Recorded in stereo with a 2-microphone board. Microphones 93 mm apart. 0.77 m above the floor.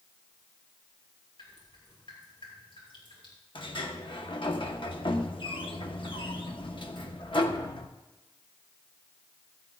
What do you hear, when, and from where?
1.4 s dripping: 60° left (ahead or behind), 4.5 m
3.5 s a sliding door: 60° left (ahead or behind), 0.9 m